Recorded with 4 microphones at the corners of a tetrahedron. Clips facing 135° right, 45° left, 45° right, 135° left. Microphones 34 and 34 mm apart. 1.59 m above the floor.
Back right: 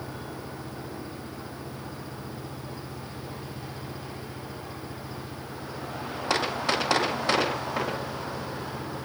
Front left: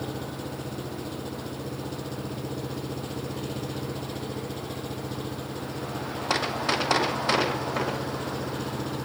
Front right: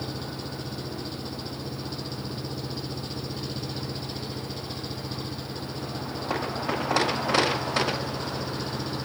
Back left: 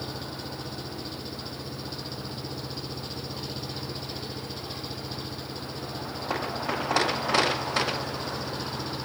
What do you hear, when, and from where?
0.0 s an engine running: 50° left